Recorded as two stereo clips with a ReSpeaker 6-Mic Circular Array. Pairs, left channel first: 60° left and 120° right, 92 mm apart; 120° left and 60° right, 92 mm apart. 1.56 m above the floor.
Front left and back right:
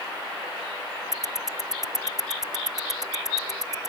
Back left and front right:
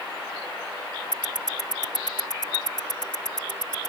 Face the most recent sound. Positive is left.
turn(degrees=155)